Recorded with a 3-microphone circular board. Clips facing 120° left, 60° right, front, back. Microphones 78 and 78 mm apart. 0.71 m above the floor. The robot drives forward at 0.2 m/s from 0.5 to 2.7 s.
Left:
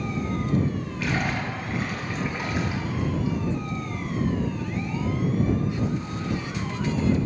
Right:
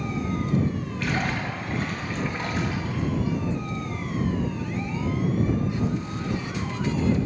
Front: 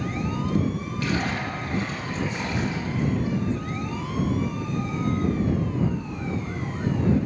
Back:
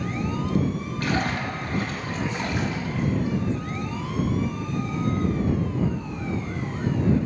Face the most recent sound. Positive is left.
turn(degrees=-165)